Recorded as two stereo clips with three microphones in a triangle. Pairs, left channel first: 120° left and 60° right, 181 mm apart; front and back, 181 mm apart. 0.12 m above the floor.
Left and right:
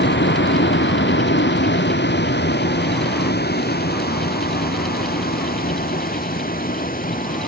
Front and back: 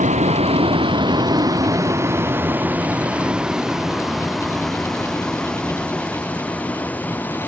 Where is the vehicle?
130° left; by 7.5 s 80° left.